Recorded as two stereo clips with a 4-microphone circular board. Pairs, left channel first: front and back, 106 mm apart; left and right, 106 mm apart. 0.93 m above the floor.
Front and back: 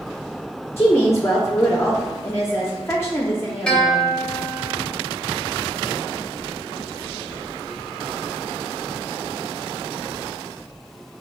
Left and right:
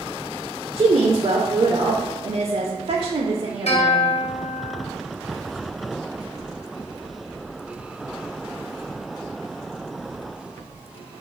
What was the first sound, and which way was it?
A woman speaking, 60° right.